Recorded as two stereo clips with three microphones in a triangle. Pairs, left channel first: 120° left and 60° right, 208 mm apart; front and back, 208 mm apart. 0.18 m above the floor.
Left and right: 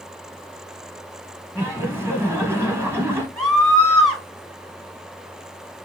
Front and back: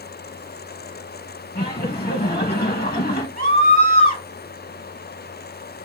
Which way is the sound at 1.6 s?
45° left.